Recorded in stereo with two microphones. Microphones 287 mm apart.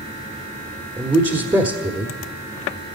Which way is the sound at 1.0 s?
15° right (ahead or behind).